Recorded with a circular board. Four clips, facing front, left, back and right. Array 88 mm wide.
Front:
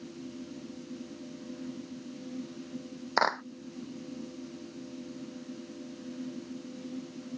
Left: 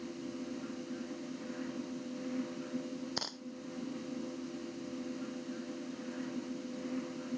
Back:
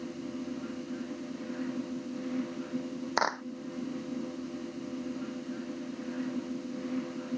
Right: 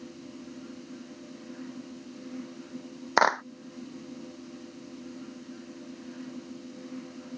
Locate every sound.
3.2 s a clap: 80° right